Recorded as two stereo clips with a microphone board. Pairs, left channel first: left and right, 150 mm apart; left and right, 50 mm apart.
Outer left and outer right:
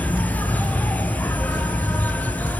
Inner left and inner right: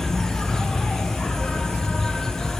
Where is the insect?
10° left (ahead or behind), 1.1 m.